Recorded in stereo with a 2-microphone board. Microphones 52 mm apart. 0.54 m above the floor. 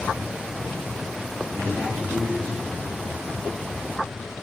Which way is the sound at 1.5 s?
25° left (ahead or behind).